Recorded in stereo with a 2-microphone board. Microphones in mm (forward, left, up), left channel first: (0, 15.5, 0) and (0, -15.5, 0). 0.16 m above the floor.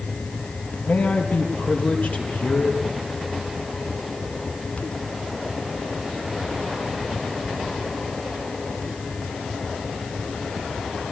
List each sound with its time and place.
0.8 s a man speaking: 70° left (ahead or behind), 5 m